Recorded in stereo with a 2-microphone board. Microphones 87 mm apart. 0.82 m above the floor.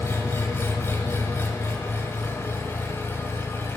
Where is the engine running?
30° left (ahead or behind), 1.0 m.